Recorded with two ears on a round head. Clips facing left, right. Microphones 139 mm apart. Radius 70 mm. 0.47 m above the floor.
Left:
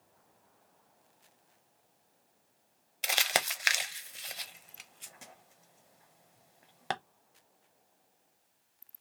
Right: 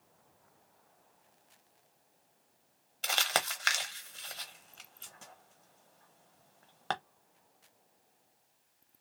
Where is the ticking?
No ticking in this recording.